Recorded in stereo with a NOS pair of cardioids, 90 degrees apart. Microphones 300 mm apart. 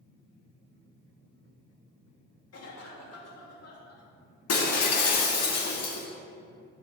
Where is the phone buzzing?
I don't hear a phone buzzing.